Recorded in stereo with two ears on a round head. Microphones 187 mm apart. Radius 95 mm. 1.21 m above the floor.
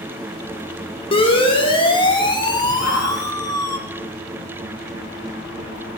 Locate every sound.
1.1 s a siren: 30° left (ahead or behind), 6.5 m; by 3.8 s 15° left (ahead or behind), 3.5 m
2.8 s a shout: 75° left (ahead or behind), 9 m